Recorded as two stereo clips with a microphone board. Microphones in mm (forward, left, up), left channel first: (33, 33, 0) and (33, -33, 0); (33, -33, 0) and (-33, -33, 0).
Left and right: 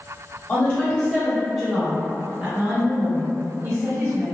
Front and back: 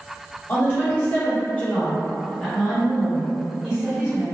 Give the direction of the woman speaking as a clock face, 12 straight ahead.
11 o'clock.